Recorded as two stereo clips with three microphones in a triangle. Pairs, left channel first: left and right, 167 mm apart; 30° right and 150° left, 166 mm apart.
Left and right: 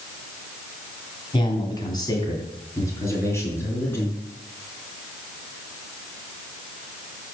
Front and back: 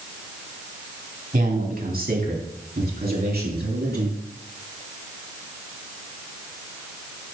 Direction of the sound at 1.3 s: 145° left.